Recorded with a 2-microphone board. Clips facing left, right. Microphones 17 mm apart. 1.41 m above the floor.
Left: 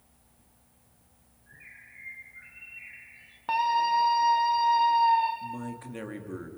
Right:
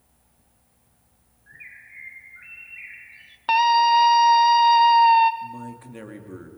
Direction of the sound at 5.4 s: 10° left (ahead or behind).